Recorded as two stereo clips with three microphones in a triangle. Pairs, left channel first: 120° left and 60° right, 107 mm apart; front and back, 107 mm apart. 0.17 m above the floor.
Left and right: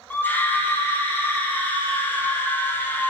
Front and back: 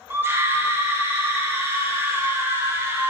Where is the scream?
160° left, 1.1 m.